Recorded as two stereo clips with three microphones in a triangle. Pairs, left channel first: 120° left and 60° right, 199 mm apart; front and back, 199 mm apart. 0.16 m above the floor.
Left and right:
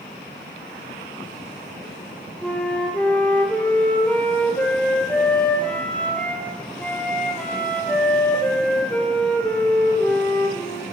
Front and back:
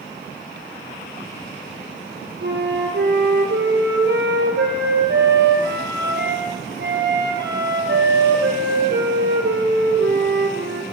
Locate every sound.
2.4 s a flute: 155° right, 2 m